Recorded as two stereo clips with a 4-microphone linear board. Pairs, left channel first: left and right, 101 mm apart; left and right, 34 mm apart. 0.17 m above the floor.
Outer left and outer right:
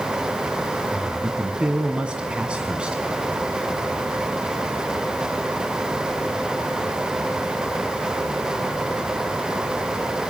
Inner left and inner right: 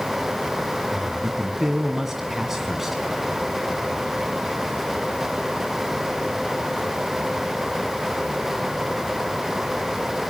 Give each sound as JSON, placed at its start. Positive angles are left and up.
{"t": 0.9, "sound": "a man speaking", "side_deg": -10, "distance_m": 1.7}